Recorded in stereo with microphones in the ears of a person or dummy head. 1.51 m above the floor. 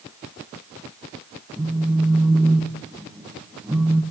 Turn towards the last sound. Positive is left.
turn(degrees=-5)  # may be behind; listen again after turning